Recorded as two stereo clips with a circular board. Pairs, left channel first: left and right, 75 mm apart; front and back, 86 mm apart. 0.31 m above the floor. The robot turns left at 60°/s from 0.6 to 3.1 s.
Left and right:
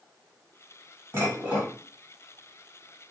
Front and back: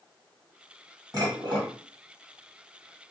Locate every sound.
1.1 s dishes clattering: 140° right, 1.7 m; by 1.7 s 175° right, 1.7 m